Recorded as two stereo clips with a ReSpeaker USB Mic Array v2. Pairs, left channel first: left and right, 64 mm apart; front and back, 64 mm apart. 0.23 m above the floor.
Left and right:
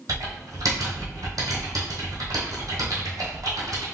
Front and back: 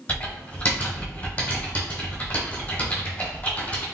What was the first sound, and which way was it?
Typing on a keyboard, 65° right.